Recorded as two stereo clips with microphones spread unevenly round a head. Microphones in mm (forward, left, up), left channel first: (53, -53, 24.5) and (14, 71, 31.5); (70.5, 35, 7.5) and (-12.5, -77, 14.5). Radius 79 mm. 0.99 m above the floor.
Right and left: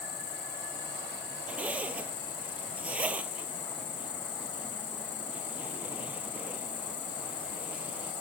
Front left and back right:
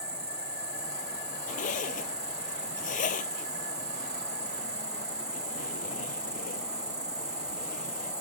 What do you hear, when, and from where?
0.0 s an insect: 60° right
1.5 s a zipper: 30° left